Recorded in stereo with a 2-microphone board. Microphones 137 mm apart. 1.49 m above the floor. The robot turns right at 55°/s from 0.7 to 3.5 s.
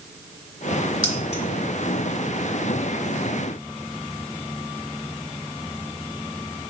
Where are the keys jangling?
30° left (ahead or behind), 2.0 m; by 1.4 s 50° left (ahead or behind), 2.0 m.